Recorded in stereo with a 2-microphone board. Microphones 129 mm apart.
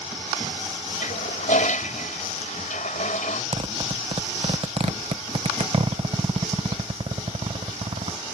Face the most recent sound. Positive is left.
turn(degrees=-50)  # may be behind; listen again after turning